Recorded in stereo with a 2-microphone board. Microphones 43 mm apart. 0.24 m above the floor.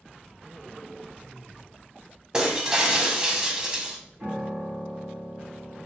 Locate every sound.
2.3 s breaking glass: 20° right (ahead or behind), 0.6 m
4.2 s a piano: 25° right (ahead or behind), 1.8 m